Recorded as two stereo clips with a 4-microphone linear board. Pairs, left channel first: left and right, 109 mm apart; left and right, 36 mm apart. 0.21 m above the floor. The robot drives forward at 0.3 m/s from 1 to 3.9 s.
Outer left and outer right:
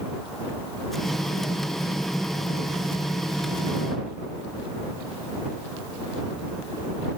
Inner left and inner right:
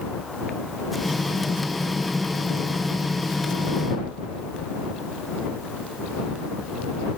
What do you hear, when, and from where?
Only background noise.